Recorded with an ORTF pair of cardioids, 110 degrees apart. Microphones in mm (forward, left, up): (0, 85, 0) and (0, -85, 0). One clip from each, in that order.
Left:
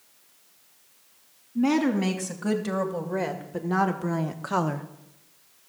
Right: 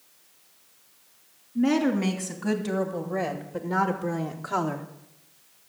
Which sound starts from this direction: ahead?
A woman speaking, at 1.6 s.